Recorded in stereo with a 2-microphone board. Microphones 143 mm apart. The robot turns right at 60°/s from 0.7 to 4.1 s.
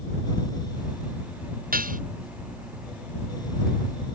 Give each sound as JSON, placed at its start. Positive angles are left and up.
{"t": 1.7, "sound": "dishes clattering", "side_deg": -85}